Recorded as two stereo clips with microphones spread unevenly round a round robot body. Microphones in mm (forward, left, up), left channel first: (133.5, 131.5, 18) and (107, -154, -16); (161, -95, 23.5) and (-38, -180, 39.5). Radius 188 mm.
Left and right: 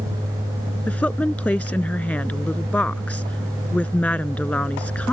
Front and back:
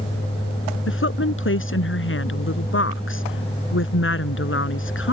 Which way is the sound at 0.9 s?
Straight ahead.